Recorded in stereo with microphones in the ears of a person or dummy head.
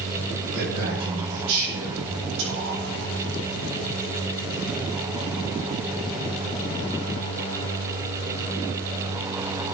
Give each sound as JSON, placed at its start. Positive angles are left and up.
{"t": 0.5, "sound": "a man speaking", "side_deg": -75, "distance_m": 9.0}